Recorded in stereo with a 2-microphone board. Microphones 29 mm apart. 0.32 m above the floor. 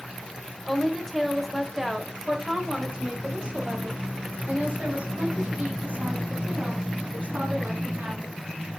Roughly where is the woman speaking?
Centre.